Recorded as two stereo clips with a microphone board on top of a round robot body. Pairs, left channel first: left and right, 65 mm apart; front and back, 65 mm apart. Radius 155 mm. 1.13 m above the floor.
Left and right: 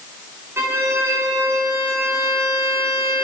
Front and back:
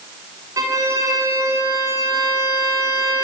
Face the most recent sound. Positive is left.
turn(degrees=-150)